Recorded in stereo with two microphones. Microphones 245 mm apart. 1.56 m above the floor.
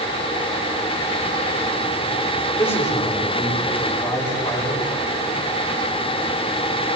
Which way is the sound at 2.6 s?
15° left (ahead or behind).